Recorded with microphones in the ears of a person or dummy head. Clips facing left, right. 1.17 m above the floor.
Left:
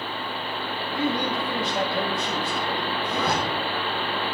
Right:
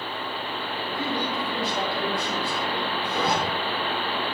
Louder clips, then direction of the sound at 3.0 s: Even; 10° right (ahead or behind).